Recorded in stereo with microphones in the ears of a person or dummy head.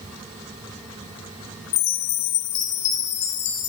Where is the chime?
35° left (ahead or behind), 1.2 m.